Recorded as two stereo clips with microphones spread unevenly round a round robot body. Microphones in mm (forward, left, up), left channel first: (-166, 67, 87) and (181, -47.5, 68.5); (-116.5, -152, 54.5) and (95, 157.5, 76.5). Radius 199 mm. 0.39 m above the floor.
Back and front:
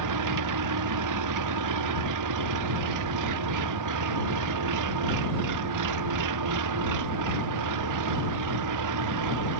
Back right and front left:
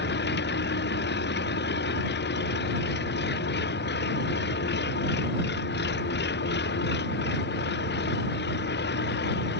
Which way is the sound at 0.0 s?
60° right.